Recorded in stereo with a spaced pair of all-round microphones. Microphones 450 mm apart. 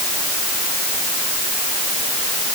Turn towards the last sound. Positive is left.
No sound to turn to.